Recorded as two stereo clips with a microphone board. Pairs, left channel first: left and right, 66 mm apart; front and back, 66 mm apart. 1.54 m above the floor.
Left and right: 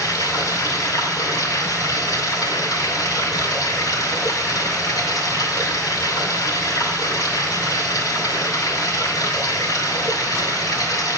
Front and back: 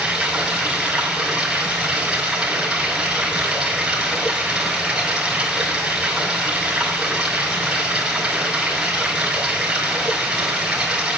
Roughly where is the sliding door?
No sliding door in this recording.